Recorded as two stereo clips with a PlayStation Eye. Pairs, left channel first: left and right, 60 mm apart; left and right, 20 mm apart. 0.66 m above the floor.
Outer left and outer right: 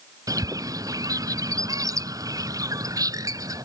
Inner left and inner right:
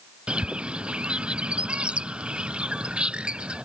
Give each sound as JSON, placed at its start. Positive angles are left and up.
{"t": 0.3, "sound": "a bird", "side_deg": -85}